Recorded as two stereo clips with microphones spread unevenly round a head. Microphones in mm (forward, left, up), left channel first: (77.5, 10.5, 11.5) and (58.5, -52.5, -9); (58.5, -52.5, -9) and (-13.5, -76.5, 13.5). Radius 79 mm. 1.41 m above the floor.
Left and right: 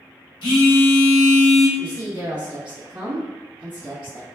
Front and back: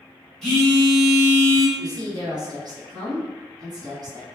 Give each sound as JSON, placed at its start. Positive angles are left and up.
{"t": 0.4, "sound": "a phone buzzing", "azimuth_deg": 95, "distance_m": 0.7}
{"t": 1.8, "sound": "a woman speaking", "azimuth_deg": -145, "distance_m": 1.4}